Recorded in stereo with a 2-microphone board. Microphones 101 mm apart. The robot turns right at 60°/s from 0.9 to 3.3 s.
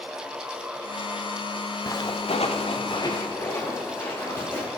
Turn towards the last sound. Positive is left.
turn(degrees=20)  # may be behind; listen again after turning